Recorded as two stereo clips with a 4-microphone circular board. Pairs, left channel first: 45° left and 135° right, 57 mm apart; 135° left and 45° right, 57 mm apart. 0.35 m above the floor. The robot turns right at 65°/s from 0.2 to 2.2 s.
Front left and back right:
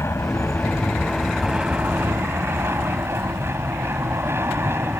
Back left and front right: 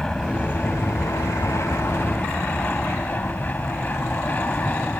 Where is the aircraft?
60° left; by 5.0 s 170° right.